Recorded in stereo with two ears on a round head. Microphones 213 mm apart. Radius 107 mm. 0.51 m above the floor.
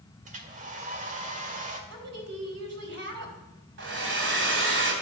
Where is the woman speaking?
50° right (ahead or behind), 3 m.